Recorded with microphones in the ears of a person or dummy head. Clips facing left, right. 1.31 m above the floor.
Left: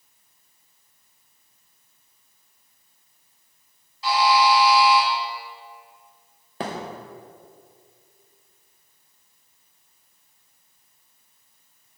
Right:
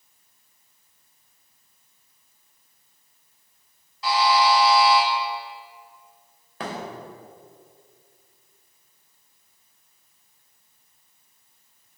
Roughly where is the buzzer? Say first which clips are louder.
Left 1 dB; right.